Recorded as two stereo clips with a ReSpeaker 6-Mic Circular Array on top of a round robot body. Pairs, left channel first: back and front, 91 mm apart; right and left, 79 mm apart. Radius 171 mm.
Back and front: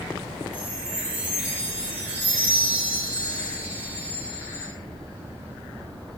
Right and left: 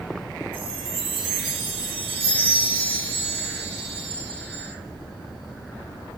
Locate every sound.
0.5 s a chime: 75° left, 0.5 m